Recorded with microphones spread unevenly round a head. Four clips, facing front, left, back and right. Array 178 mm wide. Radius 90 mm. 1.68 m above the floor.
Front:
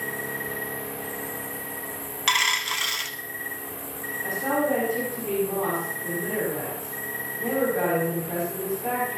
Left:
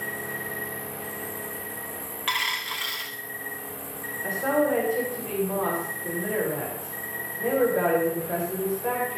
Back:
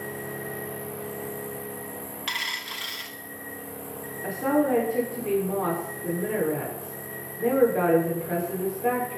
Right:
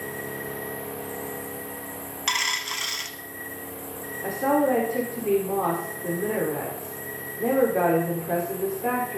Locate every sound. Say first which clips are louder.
0.0 s an insect: right 1 dB, front 2 dB; 10° left, 6.5 m
2.3 s a dropped coin: even, front 11 dB; 15° right, 1.0 m
4.2 s a woman speaking: right 2 dB, back 2 dB; 115° right, 6.5 m